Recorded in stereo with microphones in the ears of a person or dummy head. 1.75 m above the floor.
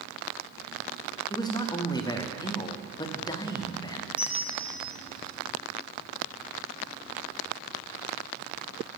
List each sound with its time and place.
1.3 s a man speaking: 25° left (ahead or behind), 0.6 m
4.2 s a bell: 5° right (ahead or behind), 1.1 m